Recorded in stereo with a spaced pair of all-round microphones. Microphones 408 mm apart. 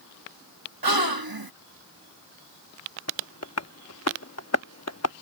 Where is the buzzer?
No buzzer in this recording.